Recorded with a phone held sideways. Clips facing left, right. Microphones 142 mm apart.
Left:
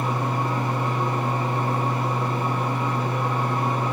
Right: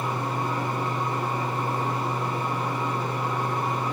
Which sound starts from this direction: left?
A fan, at 0.0 s.